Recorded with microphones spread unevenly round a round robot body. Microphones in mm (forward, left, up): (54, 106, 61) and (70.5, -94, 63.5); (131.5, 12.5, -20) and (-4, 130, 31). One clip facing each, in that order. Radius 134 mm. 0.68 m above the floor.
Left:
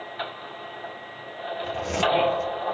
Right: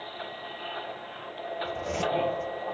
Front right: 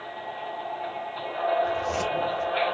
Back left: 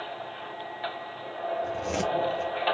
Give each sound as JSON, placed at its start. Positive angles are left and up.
{"t": 1.6, "sound": "a zipper", "azimuth_deg": 110, "distance_m": 2.5}